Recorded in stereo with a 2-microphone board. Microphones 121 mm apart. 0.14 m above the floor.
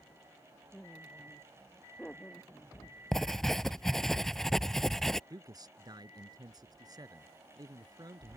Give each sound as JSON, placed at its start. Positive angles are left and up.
{"t": 0.7, "sound": "laughter", "side_deg": 5}
{"t": 3.1, "sound": "writing", "side_deg": 5}
{"t": 5.3, "sound": "a man speaking", "side_deg": -35}